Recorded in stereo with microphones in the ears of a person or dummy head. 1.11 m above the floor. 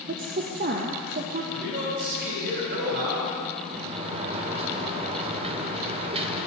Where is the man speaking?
65° right (ahead or behind), 4 m.